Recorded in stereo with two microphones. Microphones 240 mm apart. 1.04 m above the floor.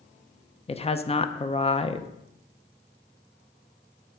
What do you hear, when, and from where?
0.7 s a woman speaking: 25° left (ahead or behind), 0.5 m